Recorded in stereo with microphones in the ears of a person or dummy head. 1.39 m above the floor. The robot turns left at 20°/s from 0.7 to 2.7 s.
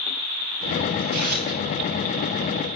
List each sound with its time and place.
1.0 s tearing paper: 45° right (ahead or behind), 7.5 m; by 1.6 s 60° right (ahead or behind), 7.5 m